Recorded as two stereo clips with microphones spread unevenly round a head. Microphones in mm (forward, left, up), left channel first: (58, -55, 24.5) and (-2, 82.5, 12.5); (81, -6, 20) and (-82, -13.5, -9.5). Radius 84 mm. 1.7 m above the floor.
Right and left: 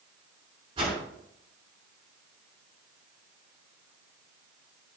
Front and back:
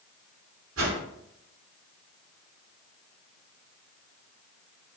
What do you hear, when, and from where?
0.8 s a whoosh: 175° left, 5.5 m